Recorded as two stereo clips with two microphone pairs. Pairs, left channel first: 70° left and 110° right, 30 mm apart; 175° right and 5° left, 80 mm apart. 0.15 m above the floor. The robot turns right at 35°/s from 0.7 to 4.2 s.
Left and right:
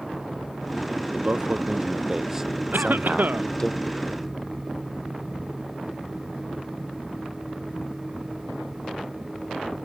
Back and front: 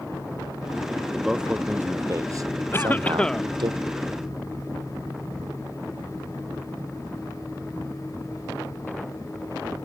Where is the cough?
110° right; by 3.5 s 85° right.